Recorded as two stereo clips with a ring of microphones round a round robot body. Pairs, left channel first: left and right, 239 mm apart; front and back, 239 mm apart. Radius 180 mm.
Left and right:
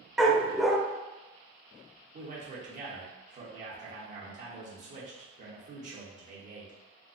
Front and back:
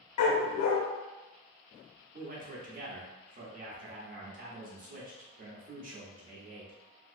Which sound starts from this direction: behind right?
A man speaking, at 2.1 s.